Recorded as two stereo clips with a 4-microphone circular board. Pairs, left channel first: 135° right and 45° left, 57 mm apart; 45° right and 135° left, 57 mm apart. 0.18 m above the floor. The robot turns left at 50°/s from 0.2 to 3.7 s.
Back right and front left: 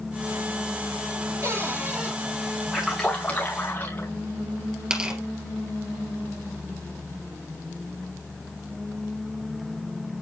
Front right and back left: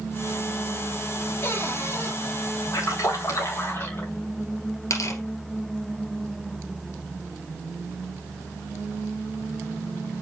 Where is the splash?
40° right, 3.5 m; by 4.1 s 90° right, 3.5 m.